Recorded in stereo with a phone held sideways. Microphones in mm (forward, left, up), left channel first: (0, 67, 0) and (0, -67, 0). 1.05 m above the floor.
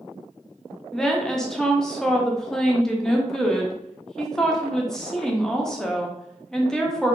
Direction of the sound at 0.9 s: 5° left (ahead or behind).